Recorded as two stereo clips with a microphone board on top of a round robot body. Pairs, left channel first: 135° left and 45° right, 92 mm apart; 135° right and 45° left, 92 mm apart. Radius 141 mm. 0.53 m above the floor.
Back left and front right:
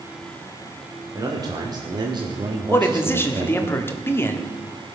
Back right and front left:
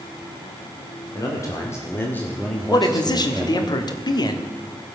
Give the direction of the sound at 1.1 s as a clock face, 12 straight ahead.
3 o'clock.